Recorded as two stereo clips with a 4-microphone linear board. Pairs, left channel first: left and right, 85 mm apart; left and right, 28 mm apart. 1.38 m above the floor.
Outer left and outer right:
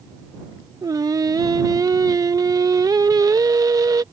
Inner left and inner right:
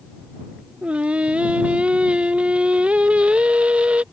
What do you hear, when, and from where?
0.8 s singing: 45° right (ahead or behind)